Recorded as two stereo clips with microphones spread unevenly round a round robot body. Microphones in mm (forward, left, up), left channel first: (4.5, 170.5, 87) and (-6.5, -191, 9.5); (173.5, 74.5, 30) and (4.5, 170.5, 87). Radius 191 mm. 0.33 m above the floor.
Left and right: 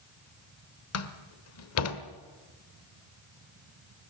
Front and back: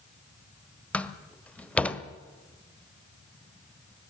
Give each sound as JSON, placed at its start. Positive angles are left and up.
{"t": 0.9, "sound": "a door slam", "azimuth_deg": 40, "distance_m": 1.5}